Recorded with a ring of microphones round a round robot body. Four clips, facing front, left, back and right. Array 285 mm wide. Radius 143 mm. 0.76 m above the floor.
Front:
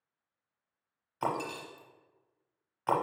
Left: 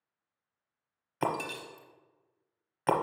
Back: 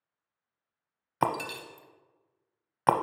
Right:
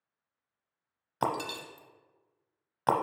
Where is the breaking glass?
170° right, 0.7 m.